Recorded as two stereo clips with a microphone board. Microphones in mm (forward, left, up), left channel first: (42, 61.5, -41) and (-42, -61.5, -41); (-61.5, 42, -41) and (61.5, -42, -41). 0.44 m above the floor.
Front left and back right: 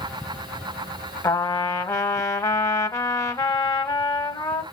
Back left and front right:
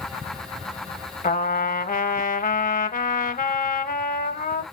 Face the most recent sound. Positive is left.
turn(degrees=125)